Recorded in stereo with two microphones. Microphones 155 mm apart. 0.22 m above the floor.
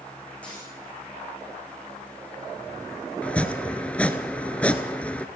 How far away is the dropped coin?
About 9.5 m.